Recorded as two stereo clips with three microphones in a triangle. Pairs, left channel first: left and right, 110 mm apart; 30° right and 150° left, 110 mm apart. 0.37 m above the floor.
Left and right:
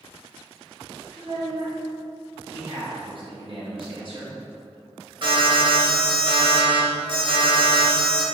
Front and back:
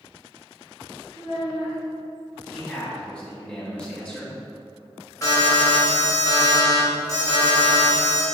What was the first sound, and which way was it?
A child speaking, 60° right.